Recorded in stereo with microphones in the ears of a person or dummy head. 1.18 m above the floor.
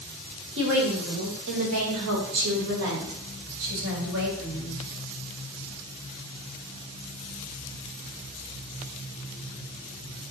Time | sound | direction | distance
0.6 | a woman speaking | 60° right (ahead or behind) | 3 m